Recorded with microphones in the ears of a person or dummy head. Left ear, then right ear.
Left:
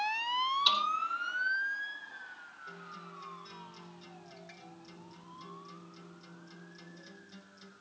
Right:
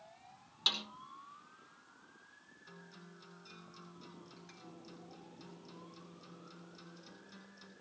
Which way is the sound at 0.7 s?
40° right (ahead or behind).